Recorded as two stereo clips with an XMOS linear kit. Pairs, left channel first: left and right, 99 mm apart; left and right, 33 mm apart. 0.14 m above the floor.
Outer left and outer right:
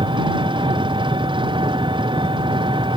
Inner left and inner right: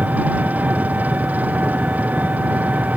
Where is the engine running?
55° right (ahead or behind).